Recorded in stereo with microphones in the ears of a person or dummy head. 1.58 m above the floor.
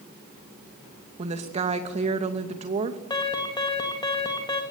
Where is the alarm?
20° left (ahead or behind), 3 m.